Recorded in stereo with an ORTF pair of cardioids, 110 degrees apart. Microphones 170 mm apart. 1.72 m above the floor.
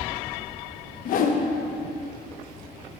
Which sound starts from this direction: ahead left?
A whoosh, at 1.1 s.